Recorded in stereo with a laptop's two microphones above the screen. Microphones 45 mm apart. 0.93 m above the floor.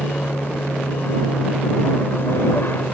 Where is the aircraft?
55° left (ahead or behind).